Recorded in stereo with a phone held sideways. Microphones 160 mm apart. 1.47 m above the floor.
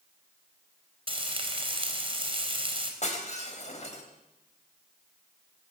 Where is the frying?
35° right (ahead or behind), 4 m.